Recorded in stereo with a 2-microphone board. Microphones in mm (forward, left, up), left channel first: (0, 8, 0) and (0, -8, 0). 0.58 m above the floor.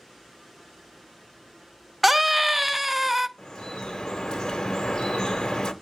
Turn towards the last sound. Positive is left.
turn(degrees=45)  # may be behind; listen again after turning